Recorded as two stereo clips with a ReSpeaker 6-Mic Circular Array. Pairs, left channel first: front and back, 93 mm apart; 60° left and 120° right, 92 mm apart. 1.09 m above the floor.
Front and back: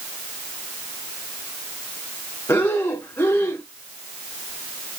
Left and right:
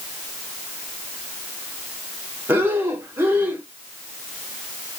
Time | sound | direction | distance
2.5 | breathing | 60° right | 1.2 m